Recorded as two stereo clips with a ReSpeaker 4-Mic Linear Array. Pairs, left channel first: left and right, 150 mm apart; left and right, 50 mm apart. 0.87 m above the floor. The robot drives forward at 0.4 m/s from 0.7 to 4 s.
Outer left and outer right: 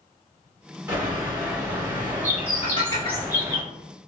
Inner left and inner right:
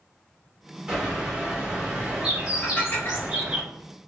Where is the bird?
10° right (ahead or behind), 1.7 m; by 3.6 s 20° right (ahead or behind), 0.9 m.